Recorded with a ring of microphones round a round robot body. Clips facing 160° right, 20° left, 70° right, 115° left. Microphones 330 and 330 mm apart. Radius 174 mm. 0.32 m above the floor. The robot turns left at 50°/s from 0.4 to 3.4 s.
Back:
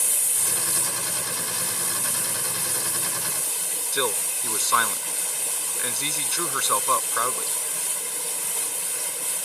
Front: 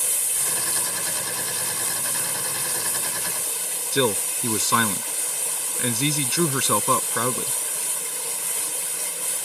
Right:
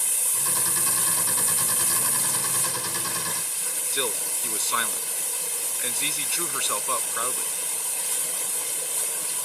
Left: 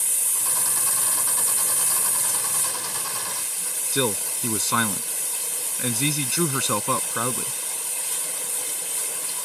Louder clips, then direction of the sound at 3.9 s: Front 6 dB, left 7 dB; 75° left.